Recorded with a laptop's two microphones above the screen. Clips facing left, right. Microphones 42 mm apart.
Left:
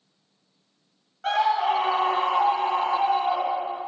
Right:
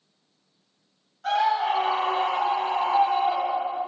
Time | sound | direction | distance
1.2 | a scream | 50° left (ahead or behind) | 0.9 m